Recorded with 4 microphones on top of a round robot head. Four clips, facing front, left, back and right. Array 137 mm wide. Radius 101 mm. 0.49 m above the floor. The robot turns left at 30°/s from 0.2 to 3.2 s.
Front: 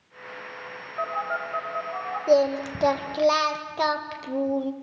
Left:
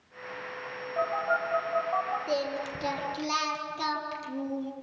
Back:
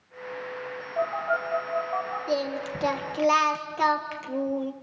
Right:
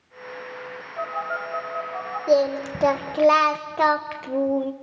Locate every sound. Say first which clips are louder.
1.0 s a phone buzzing: left 1 dB, back 2 dB; 135° left, 10 m; by 2.2 s 100° left, 10 m
2.3 s singing: right 11 dB, front 11 dB; 40° right, 1.6 m; by 4.7 s 70° right, 1.6 m